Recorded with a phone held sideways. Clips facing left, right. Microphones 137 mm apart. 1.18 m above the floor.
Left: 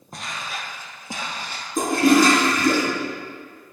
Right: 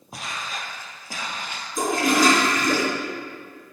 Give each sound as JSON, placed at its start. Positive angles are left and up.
{"t": 0.1, "sound": "footsteps", "side_deg": -5, "distance_m": 1.9}
{"t": 1.8, "sound": "a toilet flushing", "side_deg": 55, "distance_m": 2.5}